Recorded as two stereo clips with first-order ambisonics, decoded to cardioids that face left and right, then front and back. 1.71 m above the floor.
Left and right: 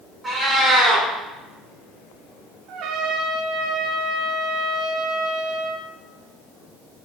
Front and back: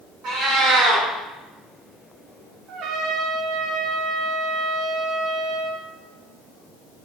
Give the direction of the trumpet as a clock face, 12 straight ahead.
4 o'clock.